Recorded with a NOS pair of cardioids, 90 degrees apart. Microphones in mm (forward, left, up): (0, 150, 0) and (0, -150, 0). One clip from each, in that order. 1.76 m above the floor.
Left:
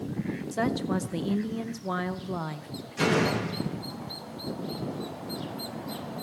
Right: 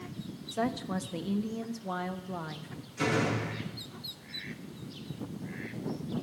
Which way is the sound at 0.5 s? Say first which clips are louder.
Left 3 dB; 25° left.